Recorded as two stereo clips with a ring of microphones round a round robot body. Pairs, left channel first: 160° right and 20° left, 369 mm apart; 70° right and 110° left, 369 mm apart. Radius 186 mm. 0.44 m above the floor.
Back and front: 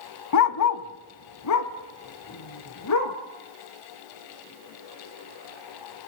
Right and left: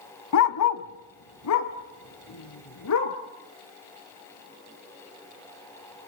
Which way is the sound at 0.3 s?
115° right.